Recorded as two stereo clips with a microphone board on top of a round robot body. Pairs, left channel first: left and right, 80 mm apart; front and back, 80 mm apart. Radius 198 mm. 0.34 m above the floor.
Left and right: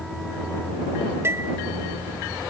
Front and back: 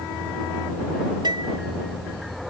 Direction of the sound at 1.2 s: 150° right.